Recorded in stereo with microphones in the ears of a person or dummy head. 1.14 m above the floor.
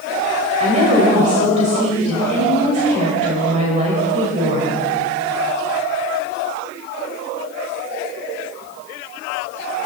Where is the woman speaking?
40° right (ahead or behind), 6 m.